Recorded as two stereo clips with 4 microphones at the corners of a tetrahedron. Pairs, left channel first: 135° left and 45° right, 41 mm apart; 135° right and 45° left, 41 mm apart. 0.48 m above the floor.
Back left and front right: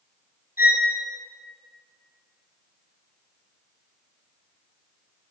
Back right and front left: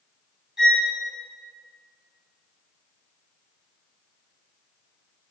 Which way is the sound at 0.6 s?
35° right.